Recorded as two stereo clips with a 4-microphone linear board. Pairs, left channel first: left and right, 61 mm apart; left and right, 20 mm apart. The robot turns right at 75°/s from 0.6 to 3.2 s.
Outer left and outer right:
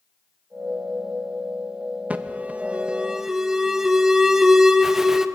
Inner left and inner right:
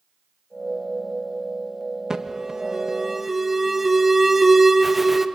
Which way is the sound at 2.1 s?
25° right (ahead or behind).